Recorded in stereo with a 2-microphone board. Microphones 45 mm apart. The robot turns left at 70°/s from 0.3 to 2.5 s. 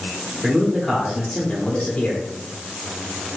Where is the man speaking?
5° right (ahead or behind), 1.1 m; by 2.2 s 20° left (ahead or behind), 1.1 m.